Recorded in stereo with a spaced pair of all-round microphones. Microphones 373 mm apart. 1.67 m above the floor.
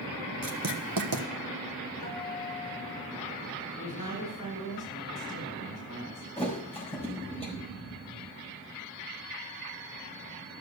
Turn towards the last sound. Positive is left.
turn(degrees=15)  # may be behind; listen again after turning